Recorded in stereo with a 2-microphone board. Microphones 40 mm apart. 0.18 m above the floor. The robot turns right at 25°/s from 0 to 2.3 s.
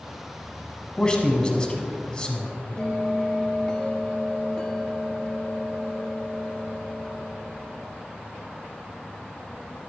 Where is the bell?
20° left (ahead or behind), 0.6 m.